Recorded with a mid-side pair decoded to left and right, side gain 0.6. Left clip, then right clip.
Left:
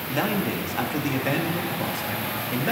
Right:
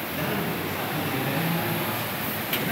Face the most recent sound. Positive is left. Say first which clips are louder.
# left 5 dB
turn(degrees=65)